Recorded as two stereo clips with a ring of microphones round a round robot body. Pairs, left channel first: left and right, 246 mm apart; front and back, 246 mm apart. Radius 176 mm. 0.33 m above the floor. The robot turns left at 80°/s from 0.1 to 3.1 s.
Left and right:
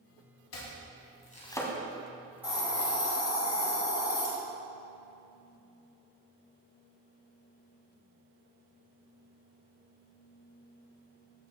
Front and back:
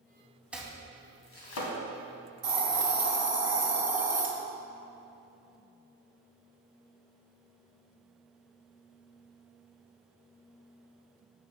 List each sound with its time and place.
0.5 s chopping: 95° left, 1.4 m; by 1.7 s straight ahead, 1.4 m
2.4 s a hiss: 175° right, 1.7 m; by 4.3 s 135° left, 1.7 m